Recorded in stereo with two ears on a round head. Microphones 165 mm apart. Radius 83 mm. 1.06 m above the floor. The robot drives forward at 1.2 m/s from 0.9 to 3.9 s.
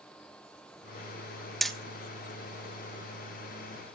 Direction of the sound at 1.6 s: Centre (ahead or behind).